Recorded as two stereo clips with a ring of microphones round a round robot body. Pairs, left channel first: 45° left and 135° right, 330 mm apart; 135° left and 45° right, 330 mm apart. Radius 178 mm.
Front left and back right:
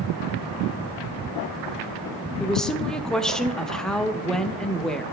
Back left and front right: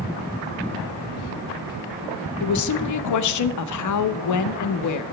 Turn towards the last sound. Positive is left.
turn(degrees=135)